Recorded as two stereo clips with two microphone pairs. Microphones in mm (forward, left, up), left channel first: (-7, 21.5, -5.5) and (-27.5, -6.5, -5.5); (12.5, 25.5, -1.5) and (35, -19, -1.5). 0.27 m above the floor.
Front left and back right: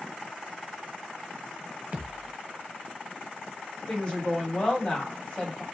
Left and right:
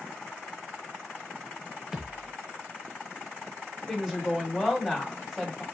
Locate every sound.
1.9 s a thud: 135° right, 0.6 m
3.9 s a woman speaking: 20° left, 1.3 m